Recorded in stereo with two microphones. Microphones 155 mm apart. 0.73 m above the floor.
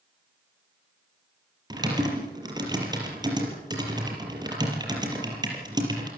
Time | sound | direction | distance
1.7 | typing on a keyboard | 25° right (ahead or behind) | 5 m